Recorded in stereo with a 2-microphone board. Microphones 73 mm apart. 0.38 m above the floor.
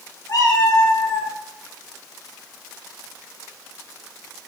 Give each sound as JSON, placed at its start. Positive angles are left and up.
{"t": 0.3, "sound": "a cat meowing", "side_deg": 60, "distance_m": 0.8}